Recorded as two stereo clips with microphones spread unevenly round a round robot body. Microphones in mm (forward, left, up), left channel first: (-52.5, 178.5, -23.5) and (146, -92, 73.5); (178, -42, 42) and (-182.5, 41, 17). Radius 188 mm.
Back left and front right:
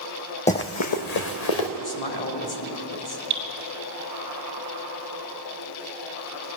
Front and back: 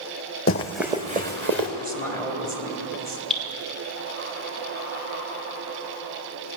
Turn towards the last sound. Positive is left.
turn(degrees=-100)